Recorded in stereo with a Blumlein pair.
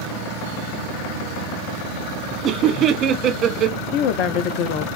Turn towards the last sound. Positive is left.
turn(degrees=40)